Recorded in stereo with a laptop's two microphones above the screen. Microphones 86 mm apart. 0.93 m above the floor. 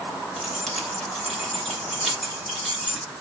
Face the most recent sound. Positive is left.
turn(degrees=5)  # may be behind; listen again after turning